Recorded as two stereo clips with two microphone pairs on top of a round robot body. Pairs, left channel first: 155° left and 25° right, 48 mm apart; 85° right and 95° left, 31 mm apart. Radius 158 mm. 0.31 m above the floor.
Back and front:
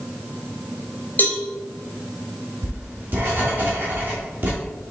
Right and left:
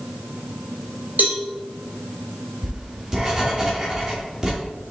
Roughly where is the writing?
Ahead left.